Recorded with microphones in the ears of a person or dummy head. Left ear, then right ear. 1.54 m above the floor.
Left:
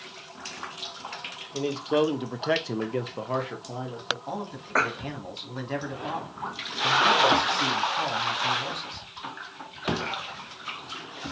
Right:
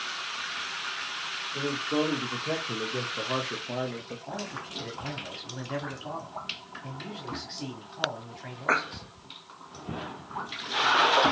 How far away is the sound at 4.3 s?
About 2 m.